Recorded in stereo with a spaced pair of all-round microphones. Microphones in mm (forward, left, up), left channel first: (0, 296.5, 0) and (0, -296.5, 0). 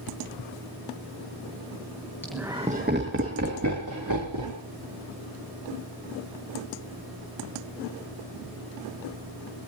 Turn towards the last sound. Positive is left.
turn(degrees=-35)  # may be behind; listen again after turning